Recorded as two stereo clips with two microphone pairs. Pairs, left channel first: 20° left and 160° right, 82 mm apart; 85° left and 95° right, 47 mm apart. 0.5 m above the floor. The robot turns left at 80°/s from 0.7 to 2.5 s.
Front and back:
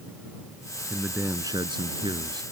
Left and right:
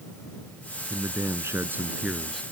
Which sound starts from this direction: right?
A man speaking, at 0.9 s.